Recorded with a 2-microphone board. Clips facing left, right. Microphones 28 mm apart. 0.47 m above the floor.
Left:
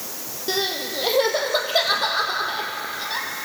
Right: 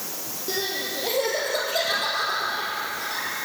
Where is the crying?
40° left (ahead or behind), 3.5 m.